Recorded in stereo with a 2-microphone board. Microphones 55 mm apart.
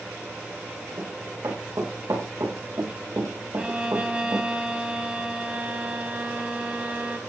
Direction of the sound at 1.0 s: 85° right.